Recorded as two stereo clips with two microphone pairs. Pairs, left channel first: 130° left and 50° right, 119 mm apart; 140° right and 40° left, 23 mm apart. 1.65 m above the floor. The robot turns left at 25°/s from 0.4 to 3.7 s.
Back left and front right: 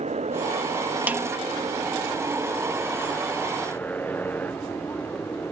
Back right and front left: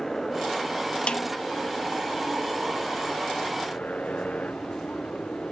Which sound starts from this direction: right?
A motorcycle, at 0.0 s.